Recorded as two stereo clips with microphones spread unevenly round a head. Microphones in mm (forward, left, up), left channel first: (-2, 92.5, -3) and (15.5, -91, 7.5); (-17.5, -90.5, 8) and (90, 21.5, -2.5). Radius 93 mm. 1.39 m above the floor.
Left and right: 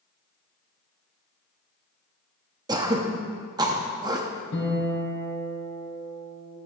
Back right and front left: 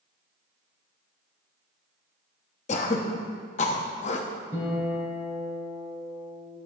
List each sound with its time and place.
2.7 s throat clearing: 145° right, 0.9 m
4.5 s a guitar: 125° left, 4 m